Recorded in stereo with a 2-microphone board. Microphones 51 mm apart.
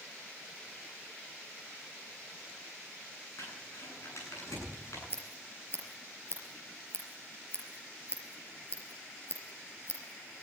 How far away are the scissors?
About 4.5 m.